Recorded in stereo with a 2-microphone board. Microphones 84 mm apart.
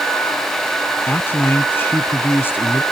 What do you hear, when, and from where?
1.1 s a man speaking: 25° left (ahead or behind)